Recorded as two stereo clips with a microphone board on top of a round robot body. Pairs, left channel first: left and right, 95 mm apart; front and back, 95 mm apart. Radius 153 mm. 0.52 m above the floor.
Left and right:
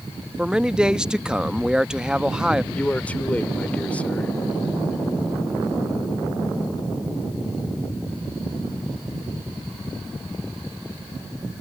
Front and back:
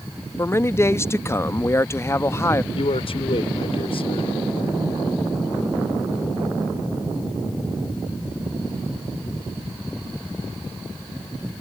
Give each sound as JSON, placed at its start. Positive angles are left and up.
{"t": 0.4, "sound": "a man speaking", "azimuth_deg": -15}
{"t": 2.7, "sound": "a man speaking", "azimuth_deg": 15}